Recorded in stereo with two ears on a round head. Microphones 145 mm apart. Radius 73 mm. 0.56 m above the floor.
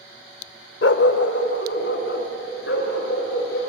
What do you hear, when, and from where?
0.8 s a dog barking: 75° left (ahead or behind), 0.8 m; by 3.6 s 80° left, 4.5 m